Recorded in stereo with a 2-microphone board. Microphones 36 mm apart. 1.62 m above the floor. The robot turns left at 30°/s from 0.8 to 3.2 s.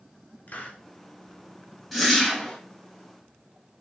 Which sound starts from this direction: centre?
A whoosh, at 1.9 s.